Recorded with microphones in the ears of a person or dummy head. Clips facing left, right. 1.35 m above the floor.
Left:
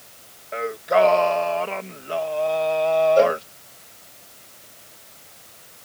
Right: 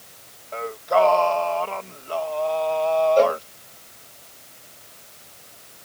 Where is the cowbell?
10° left (ahead or behind).